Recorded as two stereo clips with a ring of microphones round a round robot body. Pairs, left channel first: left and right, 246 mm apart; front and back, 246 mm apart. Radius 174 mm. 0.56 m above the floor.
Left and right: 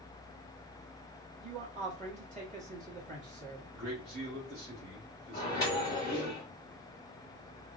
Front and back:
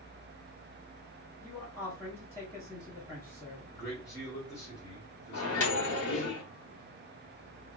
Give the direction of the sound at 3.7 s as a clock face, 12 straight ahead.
2 o'clock.